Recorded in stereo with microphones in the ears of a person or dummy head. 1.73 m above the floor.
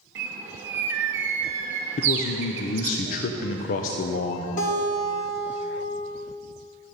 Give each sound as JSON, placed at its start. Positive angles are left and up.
{"t": 0.1, "sound": "a bird", "side_deg": -15, "distance_m": 0.8}
{"t": 2.0, "sound": "a man speaking", "side_deg": 45, "distance_m": 0.6}
{"t": 4.6, "sound": "a guitar", "side_deg": 45, "distance_m": 2.0}